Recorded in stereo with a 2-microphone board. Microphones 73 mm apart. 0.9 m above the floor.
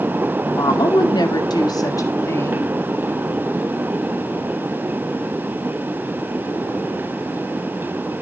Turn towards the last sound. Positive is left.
turn(degrees=25)  # may be behind; listen again after turning